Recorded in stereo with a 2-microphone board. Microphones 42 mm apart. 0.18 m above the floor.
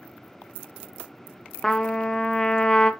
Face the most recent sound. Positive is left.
turn(degrees=15)  # may be behind; listen again after turning